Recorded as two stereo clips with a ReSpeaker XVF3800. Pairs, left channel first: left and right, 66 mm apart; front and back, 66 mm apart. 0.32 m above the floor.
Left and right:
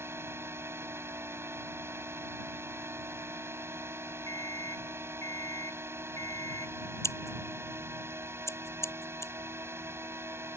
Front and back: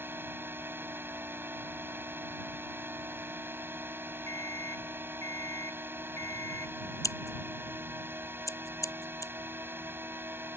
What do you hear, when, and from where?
0.0 s a drone: 130° right
4.3 s an alarm clock: 45° left
7.0 s scissors: 40° left